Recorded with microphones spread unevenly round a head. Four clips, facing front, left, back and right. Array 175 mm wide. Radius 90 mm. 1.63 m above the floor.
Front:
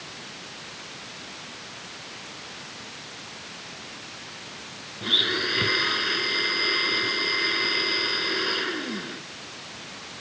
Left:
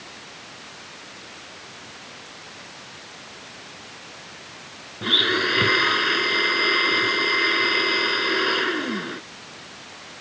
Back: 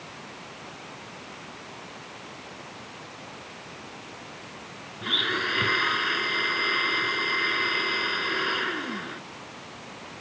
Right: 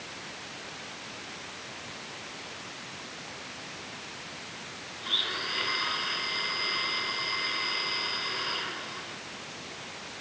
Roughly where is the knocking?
No knocking in this recording.